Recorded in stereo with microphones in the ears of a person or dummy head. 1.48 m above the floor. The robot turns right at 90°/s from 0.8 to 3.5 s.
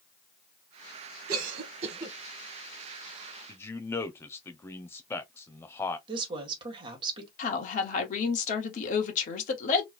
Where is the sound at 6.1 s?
30° right (ahead or behind), 1.5 m.